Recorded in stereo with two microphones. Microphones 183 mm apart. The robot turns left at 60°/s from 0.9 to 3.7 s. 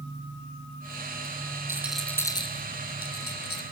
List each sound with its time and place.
1.7 s a rattle: 15° right (ahead or behind), 1.8 m; by 3.6 s 65° left (ahead or behind), 1.8 m